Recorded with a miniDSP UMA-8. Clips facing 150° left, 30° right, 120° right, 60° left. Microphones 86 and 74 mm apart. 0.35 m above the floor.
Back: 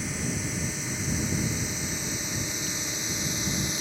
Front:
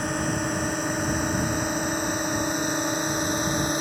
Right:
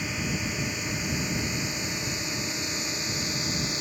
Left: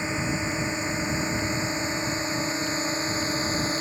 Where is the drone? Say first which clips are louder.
Front 6 dB, left 4 dB; straight ahead; by 3.8 s 5° left.